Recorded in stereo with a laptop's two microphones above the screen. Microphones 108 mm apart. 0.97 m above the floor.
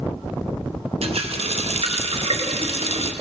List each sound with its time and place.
1.0 s a running tap: 65° right (ahead or behind), 0.6 m